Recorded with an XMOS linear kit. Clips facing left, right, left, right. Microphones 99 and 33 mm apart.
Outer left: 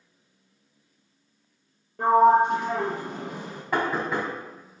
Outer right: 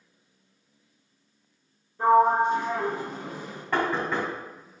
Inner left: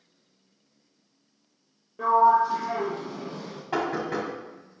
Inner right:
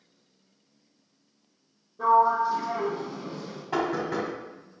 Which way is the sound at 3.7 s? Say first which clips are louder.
Even, even; 10° left (ahead or behind).